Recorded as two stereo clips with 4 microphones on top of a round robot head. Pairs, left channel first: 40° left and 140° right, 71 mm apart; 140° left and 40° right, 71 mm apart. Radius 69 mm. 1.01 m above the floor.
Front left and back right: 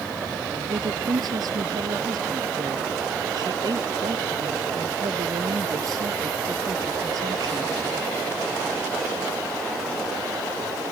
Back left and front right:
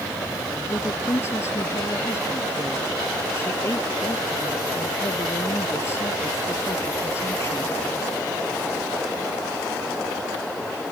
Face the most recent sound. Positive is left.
turn(degrees=-165)